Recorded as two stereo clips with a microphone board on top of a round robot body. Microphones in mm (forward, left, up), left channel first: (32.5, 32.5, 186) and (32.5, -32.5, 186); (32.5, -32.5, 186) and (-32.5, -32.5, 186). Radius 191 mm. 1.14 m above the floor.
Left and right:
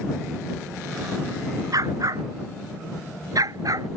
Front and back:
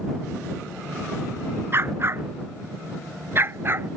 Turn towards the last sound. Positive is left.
turn(degrees=-125)